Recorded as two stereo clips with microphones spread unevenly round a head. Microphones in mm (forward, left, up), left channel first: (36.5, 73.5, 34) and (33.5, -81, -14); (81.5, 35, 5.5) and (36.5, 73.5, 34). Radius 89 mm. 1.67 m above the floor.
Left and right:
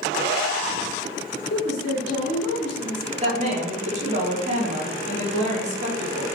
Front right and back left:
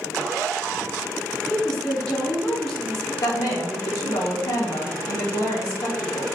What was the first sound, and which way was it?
A woman speaking, 60° left.